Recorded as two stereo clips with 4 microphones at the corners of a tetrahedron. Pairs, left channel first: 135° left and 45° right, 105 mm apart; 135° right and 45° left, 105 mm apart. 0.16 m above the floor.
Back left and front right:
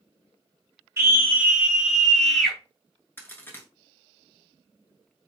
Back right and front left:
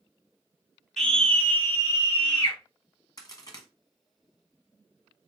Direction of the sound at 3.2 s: 170° right.